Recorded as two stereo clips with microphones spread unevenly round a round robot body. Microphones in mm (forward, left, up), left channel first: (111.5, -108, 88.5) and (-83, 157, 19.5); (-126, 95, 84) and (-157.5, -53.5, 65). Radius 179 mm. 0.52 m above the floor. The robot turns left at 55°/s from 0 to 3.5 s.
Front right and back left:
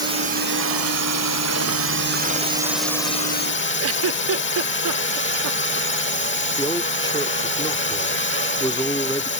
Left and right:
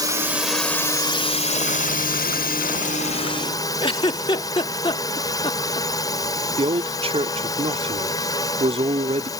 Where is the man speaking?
140° right.